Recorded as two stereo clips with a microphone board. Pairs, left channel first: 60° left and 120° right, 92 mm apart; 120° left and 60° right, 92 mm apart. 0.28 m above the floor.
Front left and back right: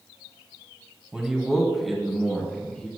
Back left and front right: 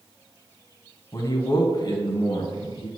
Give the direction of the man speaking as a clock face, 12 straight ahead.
7 o'clock.